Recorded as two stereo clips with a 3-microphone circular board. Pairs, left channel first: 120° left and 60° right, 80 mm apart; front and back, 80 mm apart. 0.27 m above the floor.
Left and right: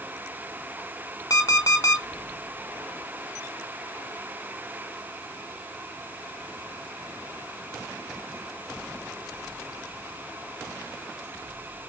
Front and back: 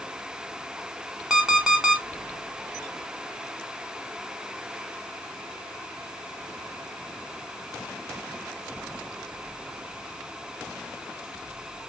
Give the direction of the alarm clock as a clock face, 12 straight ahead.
9 o'clock.